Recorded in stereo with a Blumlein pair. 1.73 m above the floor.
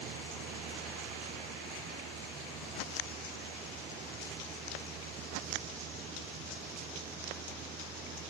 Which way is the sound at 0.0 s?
30° right.